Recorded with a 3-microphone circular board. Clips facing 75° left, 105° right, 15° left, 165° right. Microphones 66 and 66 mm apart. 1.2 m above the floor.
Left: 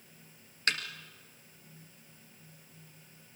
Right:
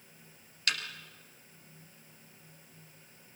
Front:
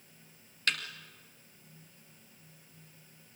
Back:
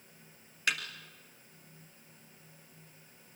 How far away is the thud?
About 2 m.